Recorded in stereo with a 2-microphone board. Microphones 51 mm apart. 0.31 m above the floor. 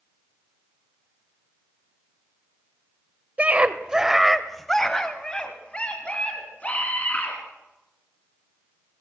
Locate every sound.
3.4 s a scream: 30° right (ahead or behind), 1.0 m; by 7.4 s 30° left (ahead or behind), 3 m